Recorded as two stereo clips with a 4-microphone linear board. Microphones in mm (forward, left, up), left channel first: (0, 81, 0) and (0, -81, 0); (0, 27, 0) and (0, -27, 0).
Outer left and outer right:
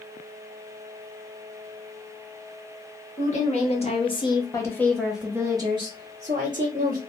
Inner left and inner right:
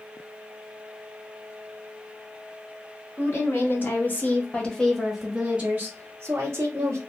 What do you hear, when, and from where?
3.2 s a woman speaking: 45° left (ahead or behind), 1.3 m; by 7.0 s 55° right (ahead or behind), 1.2 m